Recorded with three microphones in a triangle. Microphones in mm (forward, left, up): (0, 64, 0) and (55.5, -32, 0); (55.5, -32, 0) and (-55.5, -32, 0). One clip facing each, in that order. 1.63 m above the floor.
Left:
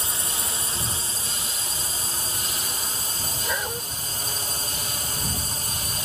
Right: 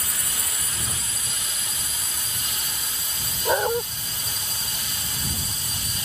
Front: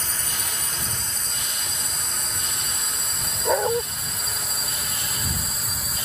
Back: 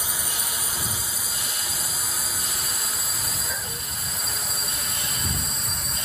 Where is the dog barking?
10° right.